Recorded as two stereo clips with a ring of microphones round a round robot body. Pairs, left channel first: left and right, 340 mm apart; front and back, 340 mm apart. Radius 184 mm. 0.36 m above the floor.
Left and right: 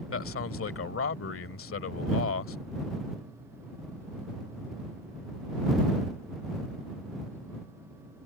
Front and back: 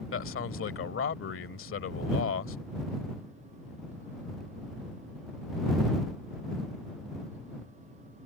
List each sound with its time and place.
0.1 s a man speaking: 45° left